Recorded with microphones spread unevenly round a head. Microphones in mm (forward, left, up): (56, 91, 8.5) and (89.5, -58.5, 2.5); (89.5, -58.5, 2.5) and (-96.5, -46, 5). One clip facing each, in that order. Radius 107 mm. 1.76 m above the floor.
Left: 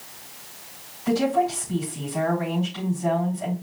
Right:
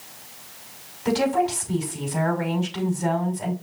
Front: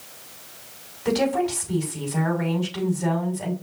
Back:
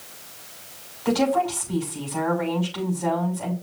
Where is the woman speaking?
70° right, 6 m.